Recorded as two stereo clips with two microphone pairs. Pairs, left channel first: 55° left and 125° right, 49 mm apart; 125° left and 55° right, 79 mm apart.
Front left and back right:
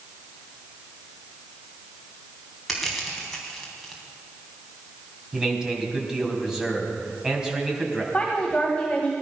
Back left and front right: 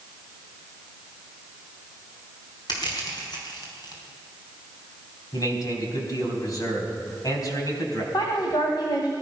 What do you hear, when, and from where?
2.7 s crushing: 145° left, 3.5 m
5.3 s a man speaking: 160° left, 3.5 m
8.1 s a woman speaking: 120° left, 1.9 m